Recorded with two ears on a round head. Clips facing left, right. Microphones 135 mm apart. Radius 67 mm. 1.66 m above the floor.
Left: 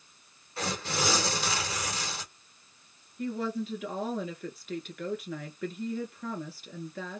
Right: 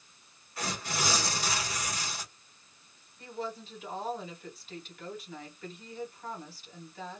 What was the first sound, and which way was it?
Tearing paper, 25° left (ahead or behind).